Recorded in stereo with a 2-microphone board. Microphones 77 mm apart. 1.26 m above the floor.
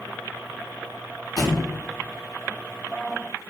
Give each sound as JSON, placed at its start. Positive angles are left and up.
{"t": 1.4, "sound": "a thud", "side_deg": 55, "distance_m": 0.9}